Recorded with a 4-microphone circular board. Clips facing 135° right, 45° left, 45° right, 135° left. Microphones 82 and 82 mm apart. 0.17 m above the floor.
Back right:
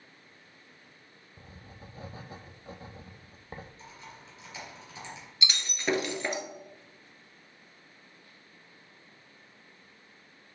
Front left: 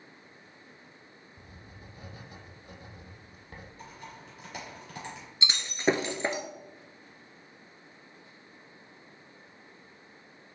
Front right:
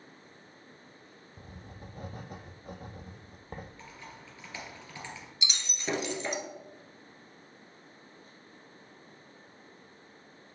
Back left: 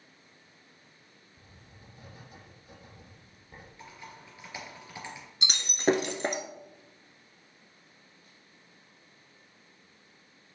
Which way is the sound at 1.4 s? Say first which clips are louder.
Back right 3 dB, front right 9 dB; 80° right.